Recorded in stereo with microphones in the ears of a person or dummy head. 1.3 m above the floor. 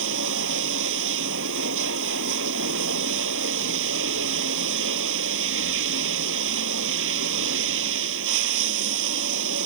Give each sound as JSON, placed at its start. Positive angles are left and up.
{"t": 0.0, "sound": "running water", "side_deg": -75}